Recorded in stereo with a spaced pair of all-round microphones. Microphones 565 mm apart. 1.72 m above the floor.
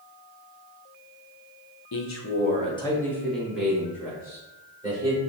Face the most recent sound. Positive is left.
turn(degrees=-10)  # may be behind; listen again after turning